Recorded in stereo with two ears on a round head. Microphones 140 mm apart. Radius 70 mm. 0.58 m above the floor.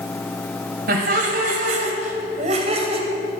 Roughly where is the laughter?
Right.